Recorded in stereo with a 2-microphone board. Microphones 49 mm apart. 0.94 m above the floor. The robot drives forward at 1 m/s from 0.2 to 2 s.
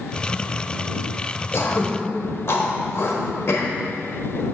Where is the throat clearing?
70° left (ahead or behind), 1.2 m; by 4.5 s 65° left (ahead or behind), 1.3 m.